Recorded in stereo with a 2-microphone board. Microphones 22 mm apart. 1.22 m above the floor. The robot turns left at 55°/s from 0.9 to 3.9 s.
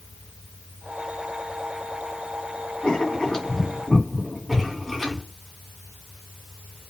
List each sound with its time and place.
2.8 s writing: 55° left (ahead or behind), 2.5 m; by 5.2 s 5° right (ahead or behind), 2.5 m